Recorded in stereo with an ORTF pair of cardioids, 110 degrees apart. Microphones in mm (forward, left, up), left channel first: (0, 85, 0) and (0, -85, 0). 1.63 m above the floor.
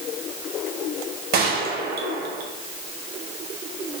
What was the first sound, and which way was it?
A gunshot, 65° right.